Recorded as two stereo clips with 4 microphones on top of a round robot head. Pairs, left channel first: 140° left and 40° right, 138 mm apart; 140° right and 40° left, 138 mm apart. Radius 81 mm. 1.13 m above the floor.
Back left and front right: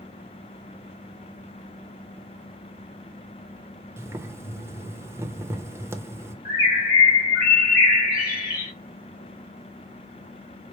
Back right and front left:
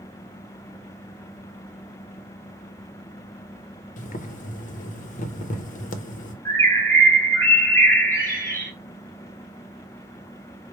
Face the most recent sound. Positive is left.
turn(degrees=150)